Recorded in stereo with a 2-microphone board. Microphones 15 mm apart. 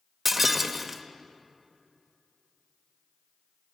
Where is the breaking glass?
15° right (ahead or behind), 0.8 m.